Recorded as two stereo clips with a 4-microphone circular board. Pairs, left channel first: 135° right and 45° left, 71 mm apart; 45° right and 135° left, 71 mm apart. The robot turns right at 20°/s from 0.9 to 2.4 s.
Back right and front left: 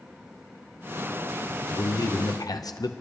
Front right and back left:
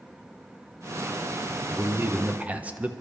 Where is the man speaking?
170° right, 0.8 m; by 2.9 s 155° right, 0.8 m.